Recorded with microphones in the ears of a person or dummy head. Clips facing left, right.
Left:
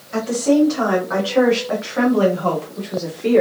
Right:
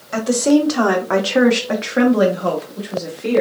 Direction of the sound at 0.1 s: 65° right (ahead or behind).